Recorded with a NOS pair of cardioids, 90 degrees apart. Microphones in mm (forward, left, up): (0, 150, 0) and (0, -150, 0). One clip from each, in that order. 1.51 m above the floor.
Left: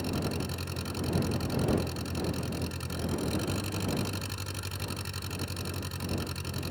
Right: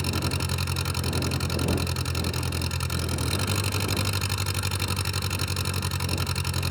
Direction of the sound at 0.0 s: 65° right.